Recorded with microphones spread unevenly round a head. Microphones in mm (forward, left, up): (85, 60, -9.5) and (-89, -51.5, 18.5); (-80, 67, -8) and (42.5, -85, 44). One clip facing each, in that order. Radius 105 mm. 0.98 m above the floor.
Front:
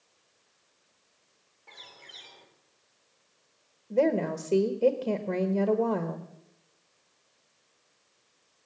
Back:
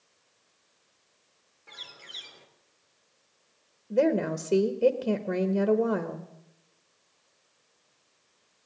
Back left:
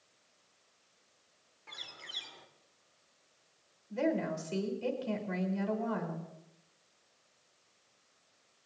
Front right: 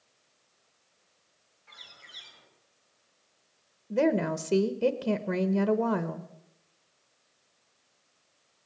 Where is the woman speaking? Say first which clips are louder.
Back 1 dB, front right 7 dB; 65° right, 1.2 m.